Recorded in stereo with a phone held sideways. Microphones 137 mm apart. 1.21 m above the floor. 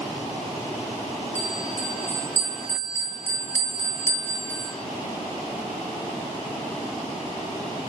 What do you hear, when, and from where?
1.4 s a bell: 60° right (ahead or behind), 1.5 m